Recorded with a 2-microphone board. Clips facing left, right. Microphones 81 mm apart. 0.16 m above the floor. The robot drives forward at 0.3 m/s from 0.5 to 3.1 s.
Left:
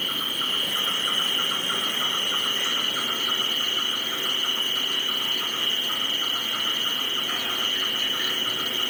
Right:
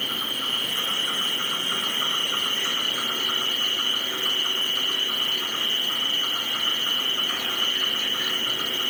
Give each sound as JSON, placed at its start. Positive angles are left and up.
{"t": 0.0, "sound": "an insect", "side_deg": 60, "distance_m": 0.8}